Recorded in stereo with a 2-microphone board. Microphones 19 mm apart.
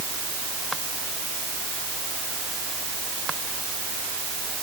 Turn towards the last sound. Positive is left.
No sound to turn to.